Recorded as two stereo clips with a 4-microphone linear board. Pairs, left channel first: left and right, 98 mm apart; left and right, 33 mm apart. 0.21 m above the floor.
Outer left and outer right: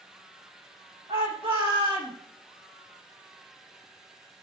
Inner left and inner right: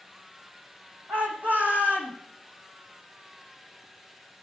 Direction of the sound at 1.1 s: 80° right.